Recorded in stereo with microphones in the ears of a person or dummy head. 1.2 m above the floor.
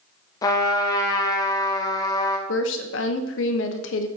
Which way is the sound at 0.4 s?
20° left (ahead or behind).